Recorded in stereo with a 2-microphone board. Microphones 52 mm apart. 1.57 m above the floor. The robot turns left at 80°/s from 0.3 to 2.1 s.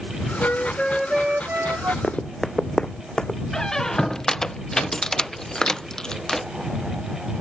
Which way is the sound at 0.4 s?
50° left.